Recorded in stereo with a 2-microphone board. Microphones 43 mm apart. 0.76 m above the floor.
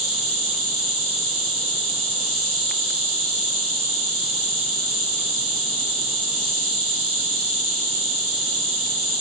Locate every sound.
0.0 s an insect: 10° left (ahead or behind), 1.0 m